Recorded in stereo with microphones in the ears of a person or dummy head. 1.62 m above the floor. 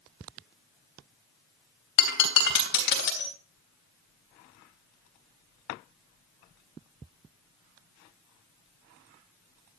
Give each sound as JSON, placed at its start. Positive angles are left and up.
{"t": 2.0, "sound": "breaking glass", "side_deg": 65, "distance_m": 3.0}